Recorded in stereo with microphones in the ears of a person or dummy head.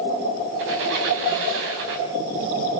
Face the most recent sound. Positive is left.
turn(degrees=-65)  # may be behind; listen again after turning